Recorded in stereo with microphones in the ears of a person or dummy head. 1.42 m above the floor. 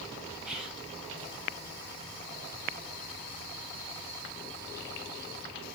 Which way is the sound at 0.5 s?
5° right (ahead or behind).